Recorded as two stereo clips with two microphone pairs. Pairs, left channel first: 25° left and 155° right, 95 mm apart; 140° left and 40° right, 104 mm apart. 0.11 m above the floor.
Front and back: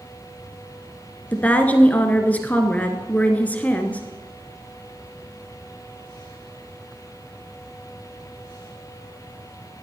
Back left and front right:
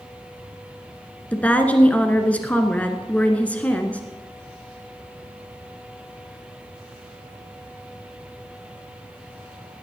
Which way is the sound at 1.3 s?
85° left.